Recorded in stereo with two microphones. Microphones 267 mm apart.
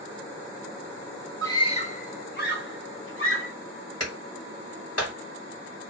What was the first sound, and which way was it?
A scream, 10° left (ahead or behind).